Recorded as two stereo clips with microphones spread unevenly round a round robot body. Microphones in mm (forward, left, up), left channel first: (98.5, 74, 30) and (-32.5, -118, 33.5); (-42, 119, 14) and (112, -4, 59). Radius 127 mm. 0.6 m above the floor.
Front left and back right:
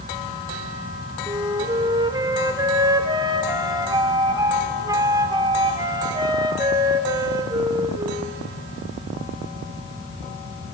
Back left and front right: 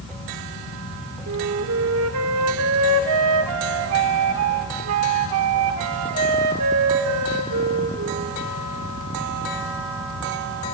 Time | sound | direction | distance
1.3 | a flute | 50° right | 1.1 m